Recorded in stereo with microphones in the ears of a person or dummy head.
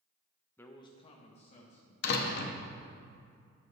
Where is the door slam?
65° left (ahead or behind), 0.9 m.